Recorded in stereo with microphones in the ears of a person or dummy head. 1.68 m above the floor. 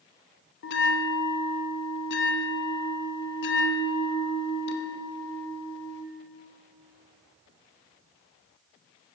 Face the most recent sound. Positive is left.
turn(degrees=65)  # may be behind; listen again after turning